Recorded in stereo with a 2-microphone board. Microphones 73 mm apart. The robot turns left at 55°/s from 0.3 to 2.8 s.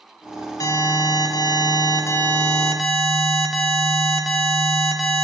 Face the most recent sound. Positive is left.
turn(degrees=5)